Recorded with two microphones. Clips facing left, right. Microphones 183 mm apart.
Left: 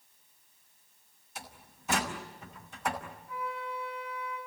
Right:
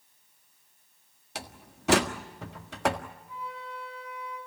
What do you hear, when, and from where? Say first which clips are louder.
1.4 s a door slam: right 6 dB; 80° right, 1.6 m
3.3 s a flute: left 4 dB; 20° right (ahead or behind), 7.5 m